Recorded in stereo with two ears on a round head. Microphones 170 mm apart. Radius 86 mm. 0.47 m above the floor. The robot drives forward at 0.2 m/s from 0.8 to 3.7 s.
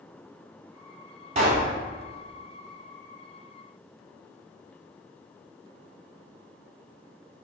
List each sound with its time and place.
1.4 s a pop: 40° right (ahead or behind), 1.8 m